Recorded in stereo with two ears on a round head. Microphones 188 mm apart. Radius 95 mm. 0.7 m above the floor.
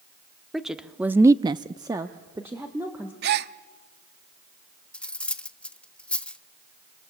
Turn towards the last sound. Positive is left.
turn(degrees=5)  # may be behind; listen again after turning